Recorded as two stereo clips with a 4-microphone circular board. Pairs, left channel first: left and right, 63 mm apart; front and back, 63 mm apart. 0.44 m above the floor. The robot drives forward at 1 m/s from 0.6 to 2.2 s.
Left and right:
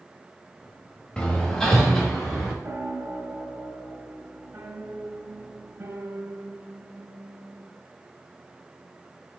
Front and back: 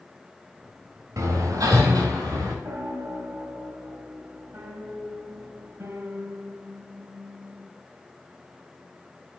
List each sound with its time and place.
1.2 s hammering: 165° left, 1.0 m; by 2.5 s 170° left, 2 m
2.6 s a piano: 140° right, 0.9 m